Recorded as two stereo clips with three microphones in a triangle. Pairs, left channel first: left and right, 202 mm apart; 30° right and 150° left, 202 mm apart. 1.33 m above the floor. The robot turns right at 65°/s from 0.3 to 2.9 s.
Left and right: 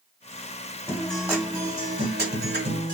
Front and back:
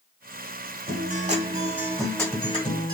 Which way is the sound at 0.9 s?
165° left.